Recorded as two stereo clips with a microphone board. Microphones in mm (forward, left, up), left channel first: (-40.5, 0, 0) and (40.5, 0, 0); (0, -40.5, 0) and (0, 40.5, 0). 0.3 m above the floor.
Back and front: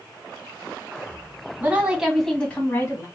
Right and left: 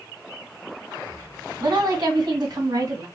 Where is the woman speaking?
65° left, 1.9 m; by 3.1 s 130° left, 2 m.